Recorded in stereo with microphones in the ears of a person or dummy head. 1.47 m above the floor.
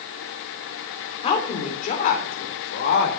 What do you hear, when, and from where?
1.2 s a woman speaking: 30° left (ahead or behind), 3.5 m; by 3.2 s 55° left (ahead or behind), 4.5 m